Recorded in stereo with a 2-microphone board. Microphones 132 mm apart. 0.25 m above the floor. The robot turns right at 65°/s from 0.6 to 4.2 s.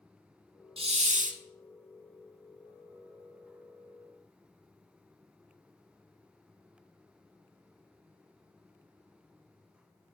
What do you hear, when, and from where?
0.8 s a hiss: 135° right, 0.5 m; by 1.4 s 90° right, 0.5 m